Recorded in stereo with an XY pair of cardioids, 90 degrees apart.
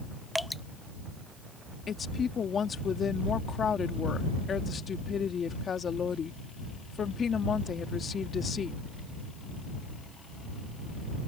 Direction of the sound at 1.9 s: 50° left.